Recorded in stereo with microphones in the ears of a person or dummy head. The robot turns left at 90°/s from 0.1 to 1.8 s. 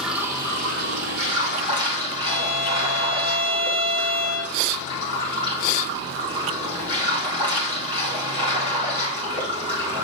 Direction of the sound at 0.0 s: 5° right.